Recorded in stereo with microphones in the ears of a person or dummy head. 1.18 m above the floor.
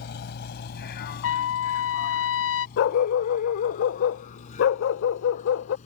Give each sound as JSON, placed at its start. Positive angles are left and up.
{"t": 0.0, "sound": "a vehicle", "side_deg": 65}
{"t": 1.2, "sound": "a trumpet", "side_deg": 65}
{"t": 2.8, "sound": "a dog barking", "side_deg": 60}